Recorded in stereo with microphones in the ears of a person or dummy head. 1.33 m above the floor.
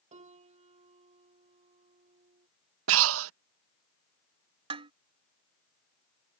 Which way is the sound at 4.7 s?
35° right (ahead or behind).